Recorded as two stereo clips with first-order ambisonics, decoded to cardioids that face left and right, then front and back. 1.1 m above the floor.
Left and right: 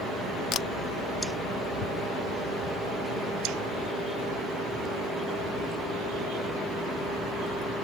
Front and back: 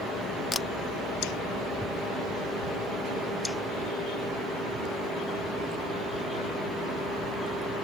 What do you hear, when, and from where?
0.5 s a camera shutter: 65° left